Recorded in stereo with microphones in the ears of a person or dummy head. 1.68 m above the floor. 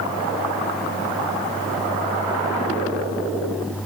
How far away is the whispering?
I don't hear whispering.